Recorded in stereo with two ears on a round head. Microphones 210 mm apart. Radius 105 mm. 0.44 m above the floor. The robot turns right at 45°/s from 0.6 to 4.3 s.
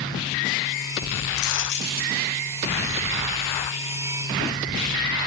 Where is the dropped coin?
110° left, 1.8 m; by 2.1 s 145° left, 1.8 m.